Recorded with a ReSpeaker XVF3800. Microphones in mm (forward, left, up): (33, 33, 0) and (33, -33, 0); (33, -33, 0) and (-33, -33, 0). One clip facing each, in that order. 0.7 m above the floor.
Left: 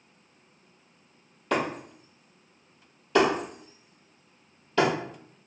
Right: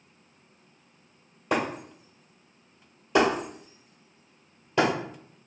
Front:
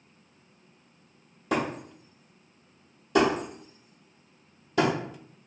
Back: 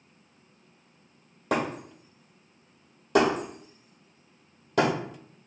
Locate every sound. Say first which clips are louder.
1.5 s breaking glass: even, even; 160° right, 1.8 m